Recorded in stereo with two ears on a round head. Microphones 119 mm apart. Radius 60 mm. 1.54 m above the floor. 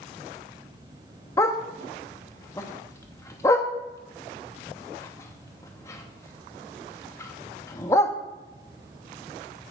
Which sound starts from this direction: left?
A dog barking, at 1.4 s.